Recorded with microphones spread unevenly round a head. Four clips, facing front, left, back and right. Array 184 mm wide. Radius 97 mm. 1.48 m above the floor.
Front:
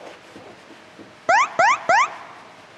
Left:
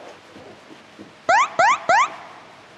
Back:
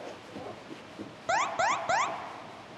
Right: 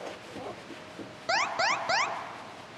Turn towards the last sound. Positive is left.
turn(degrees=45)